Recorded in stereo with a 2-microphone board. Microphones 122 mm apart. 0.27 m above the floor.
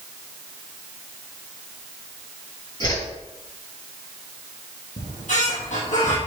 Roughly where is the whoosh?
Left.